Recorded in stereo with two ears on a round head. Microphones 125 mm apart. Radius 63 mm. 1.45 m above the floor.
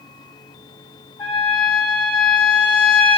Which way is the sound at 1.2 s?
15° left (ahead or behind).